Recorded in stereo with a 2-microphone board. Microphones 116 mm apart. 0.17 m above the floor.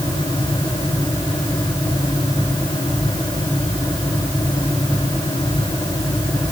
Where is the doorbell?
I don't hear a doorbell.